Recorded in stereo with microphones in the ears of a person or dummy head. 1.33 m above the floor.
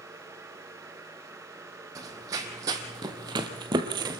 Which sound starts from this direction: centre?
Running footsteps, at 1.9 s.